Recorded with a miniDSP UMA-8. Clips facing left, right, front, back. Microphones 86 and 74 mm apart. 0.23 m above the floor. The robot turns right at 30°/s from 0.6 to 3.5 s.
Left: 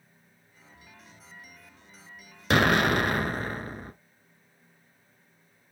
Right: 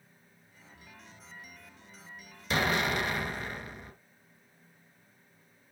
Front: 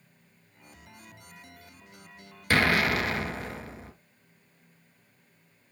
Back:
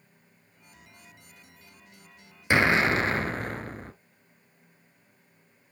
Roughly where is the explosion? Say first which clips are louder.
Left 7 dB, back 2 dB; left.